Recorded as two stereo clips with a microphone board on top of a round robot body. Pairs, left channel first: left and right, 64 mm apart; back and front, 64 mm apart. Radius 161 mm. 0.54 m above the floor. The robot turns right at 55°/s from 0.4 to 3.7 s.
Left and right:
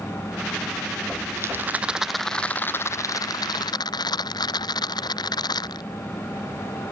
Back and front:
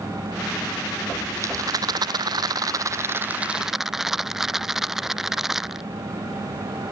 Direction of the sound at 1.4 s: 45° right.